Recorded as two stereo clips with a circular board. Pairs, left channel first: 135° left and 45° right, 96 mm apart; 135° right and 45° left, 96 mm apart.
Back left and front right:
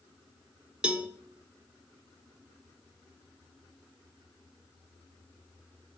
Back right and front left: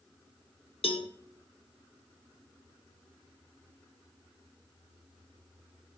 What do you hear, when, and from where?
0.8 s a cowbell: 125° right, 0.6 m